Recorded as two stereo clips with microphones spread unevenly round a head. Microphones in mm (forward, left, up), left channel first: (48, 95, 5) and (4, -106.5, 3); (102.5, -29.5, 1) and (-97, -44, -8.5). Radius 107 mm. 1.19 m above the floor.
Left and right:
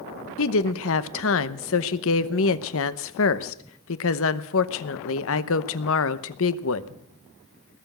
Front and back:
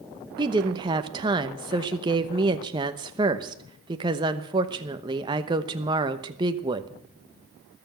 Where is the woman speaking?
110° left, 0.9 m.